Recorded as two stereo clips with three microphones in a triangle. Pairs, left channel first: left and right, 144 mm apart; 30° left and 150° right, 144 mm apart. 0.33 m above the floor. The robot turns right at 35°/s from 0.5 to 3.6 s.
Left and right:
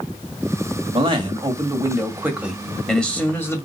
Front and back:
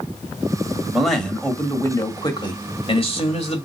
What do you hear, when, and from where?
0.9 s a man speaking: 65° right, 1.7 m; by 3.7 s 30° left, 1.7 m